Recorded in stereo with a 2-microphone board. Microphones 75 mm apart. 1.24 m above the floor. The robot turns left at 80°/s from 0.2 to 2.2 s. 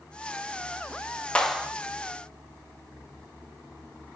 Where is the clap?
15° left, 1.0 m; by 1.7 s 15° right, 1.0 m.